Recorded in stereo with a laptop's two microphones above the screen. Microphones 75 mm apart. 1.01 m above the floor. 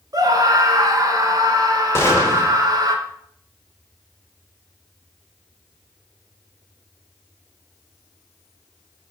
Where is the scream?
50° right (ahead or behind), 1.7 m.